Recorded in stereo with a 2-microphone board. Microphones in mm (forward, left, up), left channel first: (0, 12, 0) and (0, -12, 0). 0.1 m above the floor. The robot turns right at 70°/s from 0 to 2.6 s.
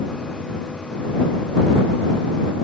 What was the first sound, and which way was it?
Only background noise.